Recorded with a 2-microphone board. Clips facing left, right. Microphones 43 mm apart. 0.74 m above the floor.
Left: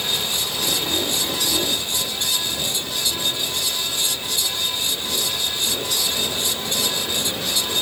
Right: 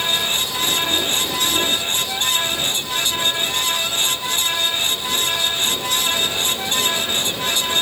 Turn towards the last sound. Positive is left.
No sound to turn to.